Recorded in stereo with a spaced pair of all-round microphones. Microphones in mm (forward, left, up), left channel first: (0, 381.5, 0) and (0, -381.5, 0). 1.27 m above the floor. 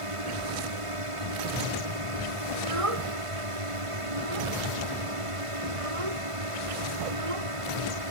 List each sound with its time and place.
0.0 s a drone: 45° right (ahead or behind)
2.5 s a child speaking: 45° right (ahead or behind)